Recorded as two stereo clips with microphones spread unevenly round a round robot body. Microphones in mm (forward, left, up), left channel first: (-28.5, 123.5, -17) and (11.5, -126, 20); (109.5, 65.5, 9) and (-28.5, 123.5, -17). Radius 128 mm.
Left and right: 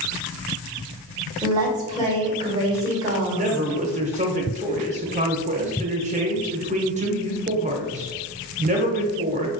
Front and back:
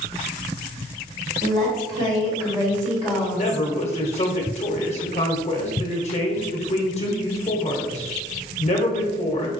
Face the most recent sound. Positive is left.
turn(degrees=-25)